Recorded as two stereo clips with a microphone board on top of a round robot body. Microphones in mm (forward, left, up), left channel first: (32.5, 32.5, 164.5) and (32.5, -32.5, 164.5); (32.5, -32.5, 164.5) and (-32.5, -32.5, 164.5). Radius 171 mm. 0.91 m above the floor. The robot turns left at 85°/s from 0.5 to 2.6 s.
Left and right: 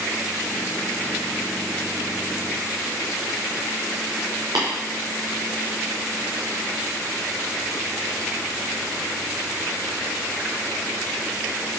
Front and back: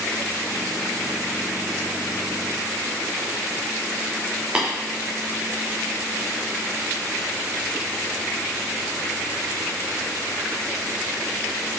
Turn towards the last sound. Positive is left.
turn(degrees=-110)